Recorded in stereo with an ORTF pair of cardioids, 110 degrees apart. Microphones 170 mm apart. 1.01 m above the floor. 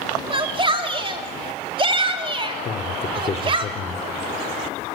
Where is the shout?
30° right, 3 m.